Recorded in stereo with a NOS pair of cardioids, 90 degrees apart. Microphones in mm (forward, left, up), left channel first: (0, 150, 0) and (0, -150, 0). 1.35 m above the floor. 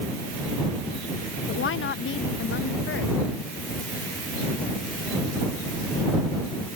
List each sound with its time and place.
1.5 s a woman speaking: 45° left